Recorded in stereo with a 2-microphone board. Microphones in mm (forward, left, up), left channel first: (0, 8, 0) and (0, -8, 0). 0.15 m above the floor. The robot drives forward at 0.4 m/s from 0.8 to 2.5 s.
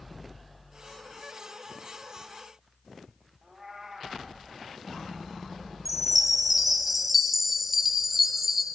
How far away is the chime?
About 0.9 m.